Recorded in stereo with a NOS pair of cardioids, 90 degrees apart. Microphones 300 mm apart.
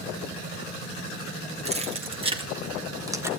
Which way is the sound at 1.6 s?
20° right.